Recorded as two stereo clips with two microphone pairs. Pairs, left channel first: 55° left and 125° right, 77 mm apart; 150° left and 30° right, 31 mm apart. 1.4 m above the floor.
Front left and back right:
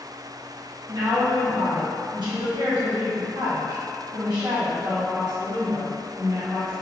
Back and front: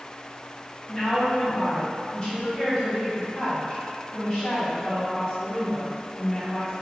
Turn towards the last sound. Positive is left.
turn(degrees=-145)